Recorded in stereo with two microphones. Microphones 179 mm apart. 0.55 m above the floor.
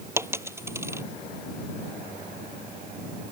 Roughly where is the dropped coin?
Centre.